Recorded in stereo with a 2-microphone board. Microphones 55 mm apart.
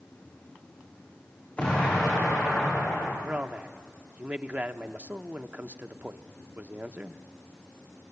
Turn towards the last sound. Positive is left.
turn(degrees=-30)  # may be behind; listen again after turning